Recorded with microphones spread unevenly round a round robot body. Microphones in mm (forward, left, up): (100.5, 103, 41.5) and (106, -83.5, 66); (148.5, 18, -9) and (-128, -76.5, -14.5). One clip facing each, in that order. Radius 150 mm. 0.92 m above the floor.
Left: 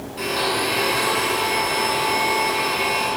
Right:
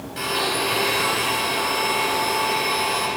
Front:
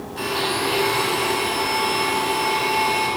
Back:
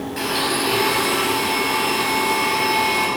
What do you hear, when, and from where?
0.2 s a blender: 120° right, 6.5 m